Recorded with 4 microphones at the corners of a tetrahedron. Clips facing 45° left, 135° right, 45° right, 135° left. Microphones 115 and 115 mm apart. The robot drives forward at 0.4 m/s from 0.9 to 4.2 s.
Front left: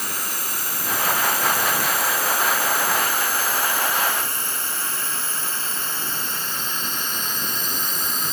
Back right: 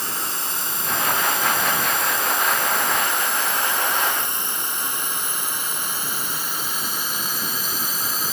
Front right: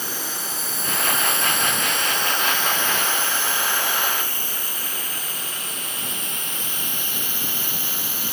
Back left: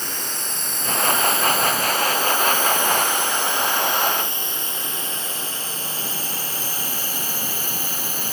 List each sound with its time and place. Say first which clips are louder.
0.0 s a drone: back right 1 dB, even; 120° right; by 8.3 s 140° left